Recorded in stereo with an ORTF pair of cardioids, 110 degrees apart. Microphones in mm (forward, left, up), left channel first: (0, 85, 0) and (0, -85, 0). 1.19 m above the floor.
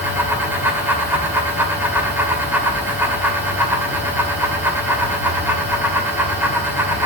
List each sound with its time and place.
0.0 s a fan: 10° right, 2.5 m